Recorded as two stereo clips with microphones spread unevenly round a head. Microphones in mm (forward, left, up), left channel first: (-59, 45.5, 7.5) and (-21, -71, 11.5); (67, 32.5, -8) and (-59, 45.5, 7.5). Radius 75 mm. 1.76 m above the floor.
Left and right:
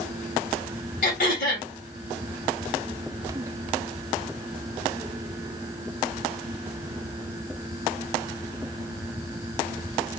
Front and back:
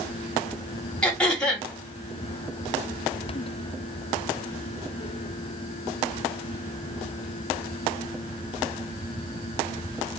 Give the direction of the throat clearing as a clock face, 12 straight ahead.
9 o'clock.